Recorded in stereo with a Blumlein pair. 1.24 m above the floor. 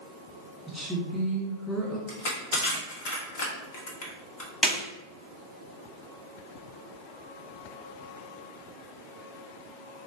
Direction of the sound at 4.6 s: 15° left.